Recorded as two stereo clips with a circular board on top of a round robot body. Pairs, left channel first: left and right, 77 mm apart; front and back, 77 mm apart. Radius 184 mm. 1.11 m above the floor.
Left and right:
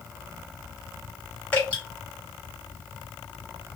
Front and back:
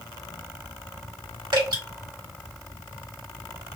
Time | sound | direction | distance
1.5 | dripping | 160° left | 2.5 m